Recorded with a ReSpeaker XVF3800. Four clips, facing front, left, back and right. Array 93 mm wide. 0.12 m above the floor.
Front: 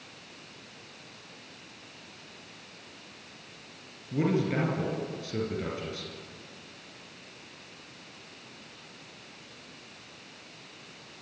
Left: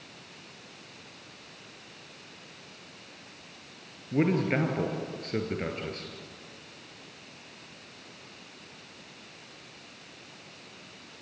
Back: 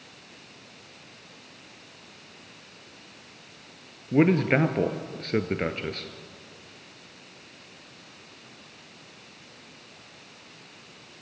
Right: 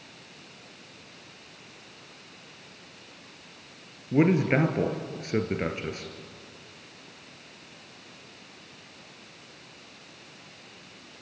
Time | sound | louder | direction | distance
4.1 | a man speaking | right 4 dB, back 7 dB | 160° right | 2 m